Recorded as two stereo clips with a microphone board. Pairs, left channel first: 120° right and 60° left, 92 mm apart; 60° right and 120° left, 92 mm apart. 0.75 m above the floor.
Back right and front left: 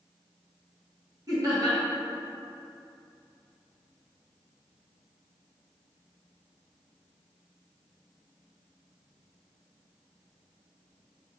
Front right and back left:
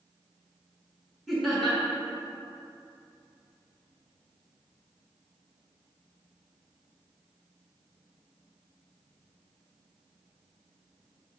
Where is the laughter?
30° left, 1.3 m.